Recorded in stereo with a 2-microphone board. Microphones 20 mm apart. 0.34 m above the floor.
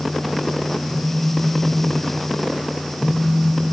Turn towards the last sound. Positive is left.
turn(degrees=-10)  # may be behind; listen again after turning